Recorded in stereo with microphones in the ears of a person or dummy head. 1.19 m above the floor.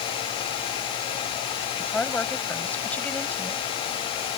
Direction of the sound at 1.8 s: 10° left (ahead or behind).